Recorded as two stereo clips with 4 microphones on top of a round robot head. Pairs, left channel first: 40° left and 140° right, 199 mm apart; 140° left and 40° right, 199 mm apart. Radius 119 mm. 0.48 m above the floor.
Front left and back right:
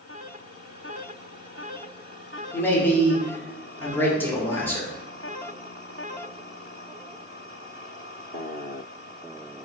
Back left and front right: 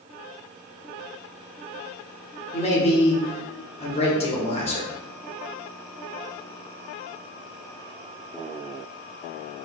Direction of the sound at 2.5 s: 110° left.